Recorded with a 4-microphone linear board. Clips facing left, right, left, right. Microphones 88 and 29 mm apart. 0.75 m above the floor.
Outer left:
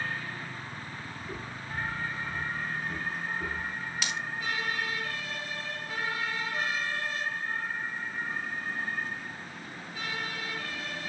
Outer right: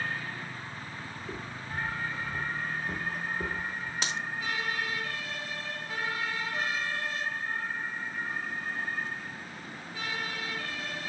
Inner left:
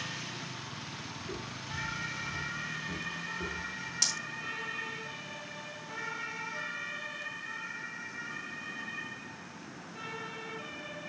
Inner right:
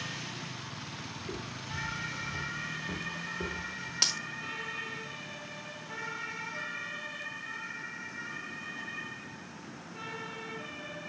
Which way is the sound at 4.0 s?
30° right (ahead or behind).